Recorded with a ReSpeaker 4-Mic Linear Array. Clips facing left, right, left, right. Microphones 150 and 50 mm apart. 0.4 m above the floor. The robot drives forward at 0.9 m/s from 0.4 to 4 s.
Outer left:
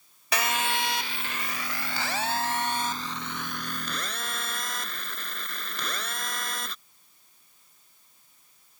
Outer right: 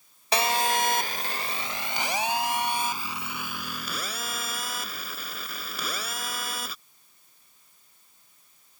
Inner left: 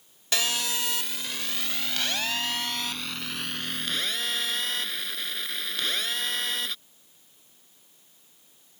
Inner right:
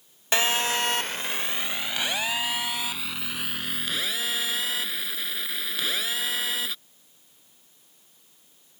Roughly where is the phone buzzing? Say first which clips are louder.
Outer right 4 dB, inner right 5 dB; right.